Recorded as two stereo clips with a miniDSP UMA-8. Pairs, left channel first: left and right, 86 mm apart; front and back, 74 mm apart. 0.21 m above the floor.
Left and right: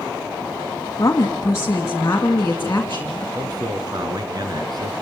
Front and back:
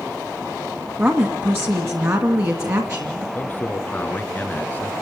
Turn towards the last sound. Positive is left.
turn(degrees=-65)